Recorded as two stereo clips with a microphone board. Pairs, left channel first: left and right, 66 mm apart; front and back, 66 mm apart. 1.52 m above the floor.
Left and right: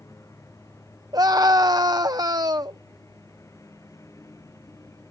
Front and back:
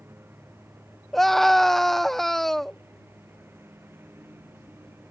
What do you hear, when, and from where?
0.0 s a lawn mower: 125° left
1.1 s a scream: 85° right